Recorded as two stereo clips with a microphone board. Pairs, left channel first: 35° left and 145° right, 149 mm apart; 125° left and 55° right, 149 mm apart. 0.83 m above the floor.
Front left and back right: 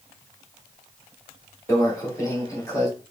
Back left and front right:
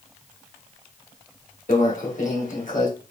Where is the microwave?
100° left, 1.7 m.